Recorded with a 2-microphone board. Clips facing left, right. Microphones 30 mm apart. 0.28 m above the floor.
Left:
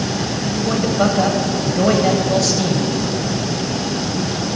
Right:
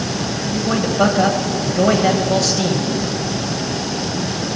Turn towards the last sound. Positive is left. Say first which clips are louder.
# right 1 dB
turn(degrees=-5)  # may be behind; listen again after turning